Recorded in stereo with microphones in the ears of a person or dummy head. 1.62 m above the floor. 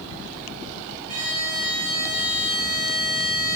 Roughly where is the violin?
Right.